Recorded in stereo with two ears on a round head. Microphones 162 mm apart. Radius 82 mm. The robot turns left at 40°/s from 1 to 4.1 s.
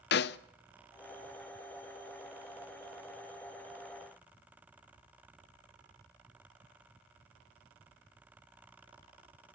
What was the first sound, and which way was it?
A snare drum, 60° left (ahead or behind).